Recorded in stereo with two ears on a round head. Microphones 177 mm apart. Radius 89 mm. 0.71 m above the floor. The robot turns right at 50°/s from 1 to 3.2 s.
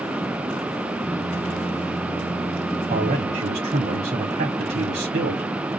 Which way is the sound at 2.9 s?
30° right (ahead or behind).